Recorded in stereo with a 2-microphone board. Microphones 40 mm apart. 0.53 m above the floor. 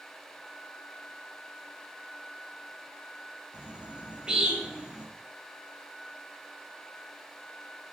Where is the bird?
20° right (ahead or behind), 0.5 m.